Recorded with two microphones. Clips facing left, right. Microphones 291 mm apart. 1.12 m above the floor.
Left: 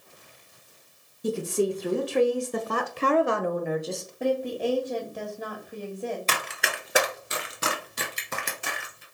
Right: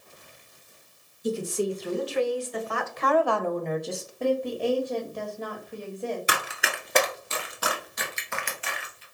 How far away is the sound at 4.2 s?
About 1.6 m.